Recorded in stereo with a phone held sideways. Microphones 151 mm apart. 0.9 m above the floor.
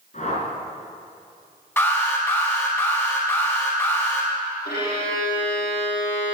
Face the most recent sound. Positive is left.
turn(degrees=85)